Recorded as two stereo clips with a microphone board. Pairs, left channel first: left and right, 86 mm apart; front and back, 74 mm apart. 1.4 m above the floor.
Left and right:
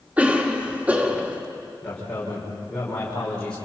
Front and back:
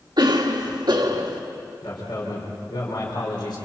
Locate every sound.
0.2 s a cough: 165° right, 2 m
1.8 s a man speaking: 10° left, 4.5 m